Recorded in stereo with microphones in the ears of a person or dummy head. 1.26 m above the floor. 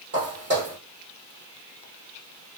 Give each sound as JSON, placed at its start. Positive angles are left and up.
{"t": 0.1, "sound": "footsteps", "side_deg": -50, "distance_m": 2.0}